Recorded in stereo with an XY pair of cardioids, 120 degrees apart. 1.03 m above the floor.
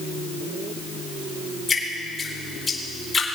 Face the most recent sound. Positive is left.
turn(degrees=25)